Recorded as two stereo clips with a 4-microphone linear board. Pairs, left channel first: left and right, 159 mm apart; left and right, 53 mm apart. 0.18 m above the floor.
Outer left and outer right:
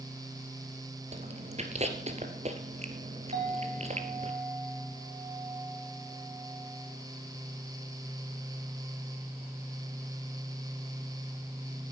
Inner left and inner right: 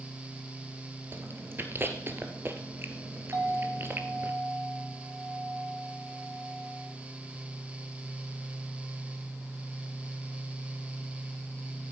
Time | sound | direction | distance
1.1 | chewing | 45° right (ahead or behind) | 1.9 m
3.3 | a clink | 80° right | 6.5 m